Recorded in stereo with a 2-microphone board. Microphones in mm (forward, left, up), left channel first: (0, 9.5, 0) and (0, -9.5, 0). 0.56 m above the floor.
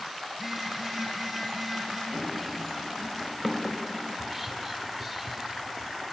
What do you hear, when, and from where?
0.3 s a phone buzzing: 5° right (ahead or behind), 5 m
2.1 s running footsteps: 10° left (ahead or behind), 4 m; by 3.8 s 10° right (ahead or behind), 4 m
4.1 s whispering: 10° right (ahead or behind), 2 m